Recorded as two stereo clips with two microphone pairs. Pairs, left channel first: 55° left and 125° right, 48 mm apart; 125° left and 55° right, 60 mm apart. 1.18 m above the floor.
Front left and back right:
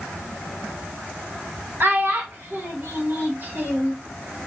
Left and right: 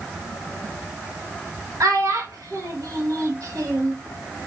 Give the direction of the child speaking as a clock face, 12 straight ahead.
3 o'clock.